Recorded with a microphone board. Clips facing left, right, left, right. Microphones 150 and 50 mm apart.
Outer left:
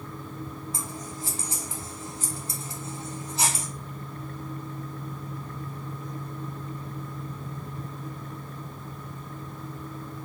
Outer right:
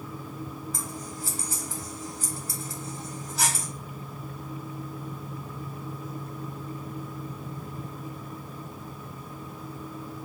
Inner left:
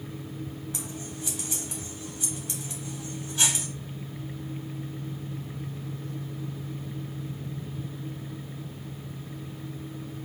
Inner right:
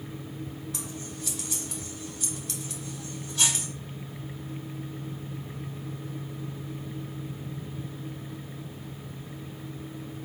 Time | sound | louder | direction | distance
0.7 | scissors | even, inner left 1 dB | 25° left (ahead or behind) | 1.2 m